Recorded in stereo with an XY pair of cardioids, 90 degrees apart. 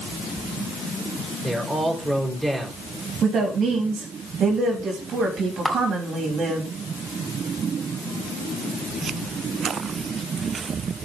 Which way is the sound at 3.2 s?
65° right.